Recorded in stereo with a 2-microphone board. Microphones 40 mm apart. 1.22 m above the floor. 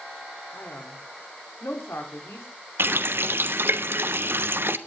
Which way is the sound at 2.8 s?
70° right (ahead or behind).